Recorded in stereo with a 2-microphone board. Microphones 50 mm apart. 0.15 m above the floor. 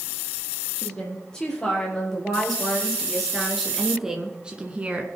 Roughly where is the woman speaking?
Centre.